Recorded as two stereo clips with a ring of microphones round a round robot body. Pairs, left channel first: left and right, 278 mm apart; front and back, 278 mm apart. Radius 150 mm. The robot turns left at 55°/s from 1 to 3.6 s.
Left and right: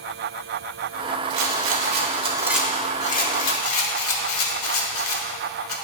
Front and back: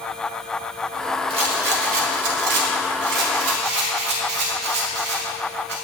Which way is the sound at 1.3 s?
110° right.